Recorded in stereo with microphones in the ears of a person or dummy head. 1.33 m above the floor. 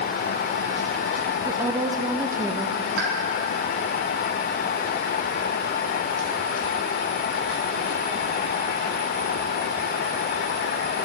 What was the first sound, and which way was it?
A woman speaking, 15° right (ahead or behind).